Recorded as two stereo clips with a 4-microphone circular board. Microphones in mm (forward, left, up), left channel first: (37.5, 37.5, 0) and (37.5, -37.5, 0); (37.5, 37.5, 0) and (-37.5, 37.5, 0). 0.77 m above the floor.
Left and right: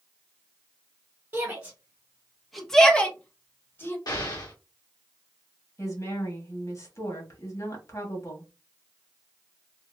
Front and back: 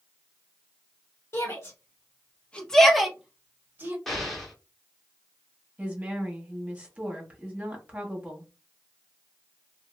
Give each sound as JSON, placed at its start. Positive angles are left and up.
{"t": 1.3, "sound": "a shout", "azimuth_deg": -35, "distance_m": 1.4}
{"t": 4.1, "sound": "an explosion", "azimuth_deg": 85, "distance_m": 1.5}
{"t": 5.8, "sound": "a woman speaking", "azimuth_deg": 110, "distance_m": 1.5}